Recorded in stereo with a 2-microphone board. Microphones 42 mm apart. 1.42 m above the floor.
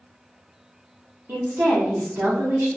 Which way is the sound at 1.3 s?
60° right (ahead or behind).